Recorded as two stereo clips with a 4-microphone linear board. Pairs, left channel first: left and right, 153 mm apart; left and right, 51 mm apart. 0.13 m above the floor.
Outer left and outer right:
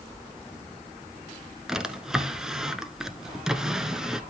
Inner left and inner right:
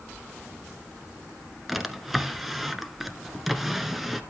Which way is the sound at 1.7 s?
5° right (ahead or behind).